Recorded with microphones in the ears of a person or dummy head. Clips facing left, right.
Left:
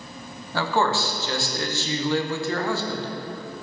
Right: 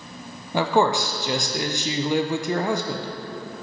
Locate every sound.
0.5 s a man speaking: 20° right (ahead or behind), 0.6 m